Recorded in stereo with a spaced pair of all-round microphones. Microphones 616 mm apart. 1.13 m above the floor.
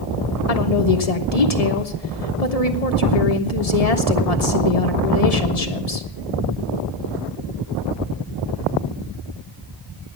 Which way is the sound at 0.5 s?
70° left (ahead or behind).